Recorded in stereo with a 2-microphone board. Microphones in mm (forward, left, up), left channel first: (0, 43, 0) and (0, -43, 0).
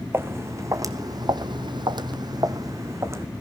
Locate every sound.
0.1 s footsteps: 30° right (ahead or behind), 1.2 m